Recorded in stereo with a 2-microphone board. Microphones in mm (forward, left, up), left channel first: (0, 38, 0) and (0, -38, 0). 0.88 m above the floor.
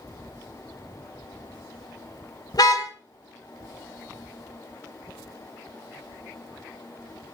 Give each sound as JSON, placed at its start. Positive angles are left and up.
{"t": 2.5, "sound": "a car horn", "side_deg": 55, "distance_m": 2.0}